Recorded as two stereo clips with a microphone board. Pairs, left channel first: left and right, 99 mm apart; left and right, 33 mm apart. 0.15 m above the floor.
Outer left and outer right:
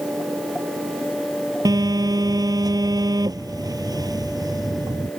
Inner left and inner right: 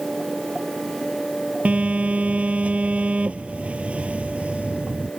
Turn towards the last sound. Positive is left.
turn(degrees=-40)  # may be behind; listen again after turning